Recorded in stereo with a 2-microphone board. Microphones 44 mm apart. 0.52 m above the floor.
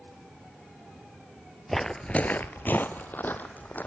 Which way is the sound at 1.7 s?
Centre (ahead or behind).